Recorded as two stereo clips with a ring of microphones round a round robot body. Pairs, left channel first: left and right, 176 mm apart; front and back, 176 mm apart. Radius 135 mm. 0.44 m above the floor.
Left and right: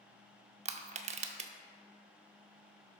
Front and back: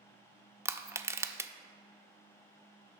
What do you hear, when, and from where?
0.7 s crushing: 110° right, 0.6 m